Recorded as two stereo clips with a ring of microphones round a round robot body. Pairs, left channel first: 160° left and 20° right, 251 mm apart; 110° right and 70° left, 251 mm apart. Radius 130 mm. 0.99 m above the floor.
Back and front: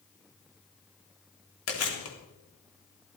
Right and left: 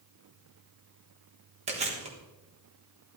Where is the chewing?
130° left, 3.5 m.